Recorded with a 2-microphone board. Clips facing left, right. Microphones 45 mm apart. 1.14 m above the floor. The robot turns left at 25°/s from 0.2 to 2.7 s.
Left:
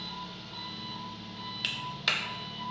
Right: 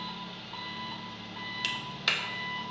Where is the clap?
10° left (ahead or behind), 0.8 m; by 2.2 s 5° right (ahead or behind), 0.8 m.